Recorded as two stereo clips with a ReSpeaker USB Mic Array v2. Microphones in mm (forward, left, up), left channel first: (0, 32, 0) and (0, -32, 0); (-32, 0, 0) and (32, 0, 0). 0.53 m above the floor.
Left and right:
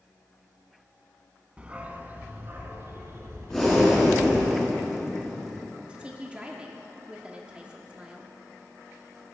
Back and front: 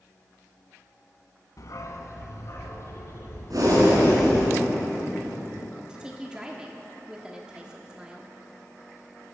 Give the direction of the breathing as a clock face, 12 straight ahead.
12 o'clock.